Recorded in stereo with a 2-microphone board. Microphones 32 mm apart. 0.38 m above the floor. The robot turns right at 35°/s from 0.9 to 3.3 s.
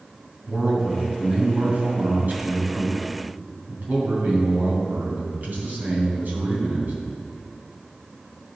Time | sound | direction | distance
0.5 | a man speaking | 155° right | 3 m